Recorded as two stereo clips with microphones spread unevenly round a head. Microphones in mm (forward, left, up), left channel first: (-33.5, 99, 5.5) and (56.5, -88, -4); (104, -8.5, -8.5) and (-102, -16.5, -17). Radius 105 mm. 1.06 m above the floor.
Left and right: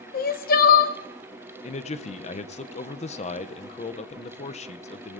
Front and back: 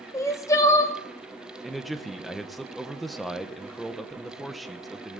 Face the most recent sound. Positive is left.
turn(degrees=95)